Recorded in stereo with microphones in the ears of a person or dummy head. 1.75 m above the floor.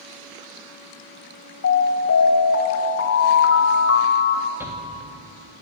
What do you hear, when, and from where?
1.6 s an alarm: 65° left (ahead or behind), 2.5 m
4.6 s a shout: 10° right (ahead or behind), 3 m